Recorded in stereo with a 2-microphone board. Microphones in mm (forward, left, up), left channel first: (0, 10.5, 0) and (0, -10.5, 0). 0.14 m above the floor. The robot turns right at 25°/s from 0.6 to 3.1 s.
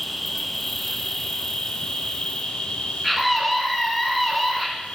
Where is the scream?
Centre (ahead or behind), 1.2 m.